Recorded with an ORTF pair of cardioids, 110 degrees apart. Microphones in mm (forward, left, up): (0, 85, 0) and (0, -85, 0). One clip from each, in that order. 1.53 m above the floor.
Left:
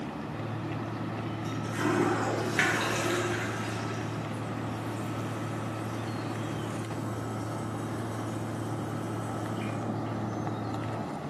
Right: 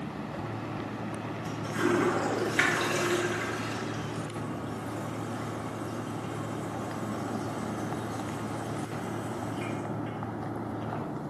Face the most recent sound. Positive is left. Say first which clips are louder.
# even
turn(degrees=0)